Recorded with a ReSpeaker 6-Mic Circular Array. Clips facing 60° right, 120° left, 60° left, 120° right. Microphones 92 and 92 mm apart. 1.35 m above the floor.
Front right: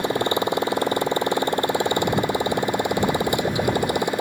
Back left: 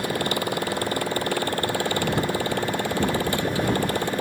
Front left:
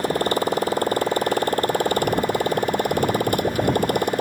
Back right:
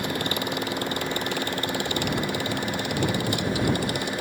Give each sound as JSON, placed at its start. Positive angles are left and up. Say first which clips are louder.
{"t": 0.0, "sound": "a motorcycle", "louder": "front right 4 dB, front left 7 dB", "azimuth_deg": 10}